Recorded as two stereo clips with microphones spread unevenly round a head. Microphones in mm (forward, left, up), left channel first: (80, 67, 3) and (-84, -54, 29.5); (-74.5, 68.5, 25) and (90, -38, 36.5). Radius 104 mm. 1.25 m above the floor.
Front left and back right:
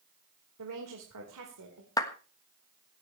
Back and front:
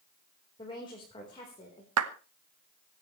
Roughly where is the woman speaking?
Behind right.